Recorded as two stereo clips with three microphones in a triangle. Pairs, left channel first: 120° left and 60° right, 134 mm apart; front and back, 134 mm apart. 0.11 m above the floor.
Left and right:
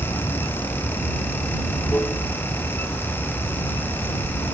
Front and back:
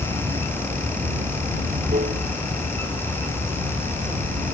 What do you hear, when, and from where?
0.0 s running water: 160° right